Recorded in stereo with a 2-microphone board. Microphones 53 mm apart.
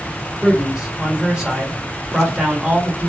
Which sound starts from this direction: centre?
A man speaking, at 0.4 s.